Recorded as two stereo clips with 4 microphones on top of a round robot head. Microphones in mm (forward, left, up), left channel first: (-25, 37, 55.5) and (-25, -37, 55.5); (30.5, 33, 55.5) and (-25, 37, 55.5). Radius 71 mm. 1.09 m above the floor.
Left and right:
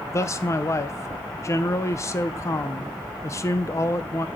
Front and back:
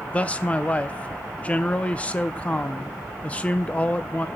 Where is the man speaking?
55° left, 0.6 m.